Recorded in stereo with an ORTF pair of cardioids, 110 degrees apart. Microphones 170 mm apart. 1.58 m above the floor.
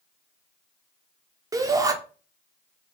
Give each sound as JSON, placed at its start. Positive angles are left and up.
{"t": 1.5, "sound": "a shout", "azimuth_deg": -20, "distance_m": 0.6}